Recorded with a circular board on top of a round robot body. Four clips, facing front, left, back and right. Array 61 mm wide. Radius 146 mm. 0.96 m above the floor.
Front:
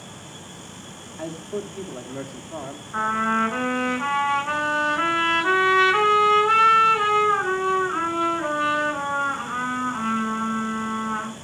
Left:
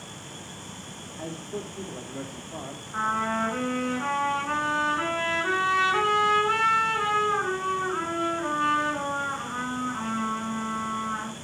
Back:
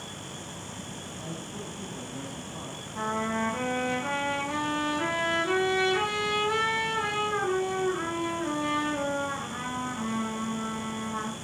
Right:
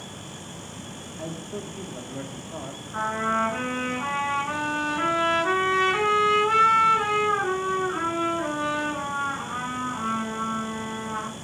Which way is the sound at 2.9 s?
Straight ahead.